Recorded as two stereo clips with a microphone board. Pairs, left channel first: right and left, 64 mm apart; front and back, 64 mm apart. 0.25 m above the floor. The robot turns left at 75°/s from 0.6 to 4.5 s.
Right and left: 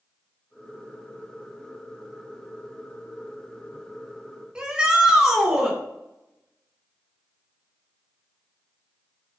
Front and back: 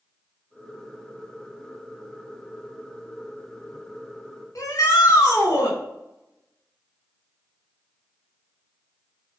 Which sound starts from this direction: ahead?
A shout, at 4.5 s.